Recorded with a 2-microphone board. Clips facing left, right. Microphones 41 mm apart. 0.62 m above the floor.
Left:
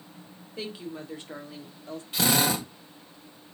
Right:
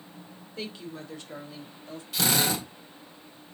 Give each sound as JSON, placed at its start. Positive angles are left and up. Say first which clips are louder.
{"t": 0.6, "sound": "a woman speaking", "louder": "left 2 dB", "side_deg": 10, "distance_m": 1.6}
{"t": 2.1, "sound": "a drill", "louder": "left 2 dB", "side_deg": 25, "distance_m": 2.0}